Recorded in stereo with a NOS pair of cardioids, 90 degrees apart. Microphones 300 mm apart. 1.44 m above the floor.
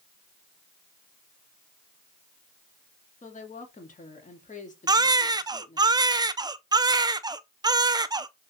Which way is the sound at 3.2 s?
25° left.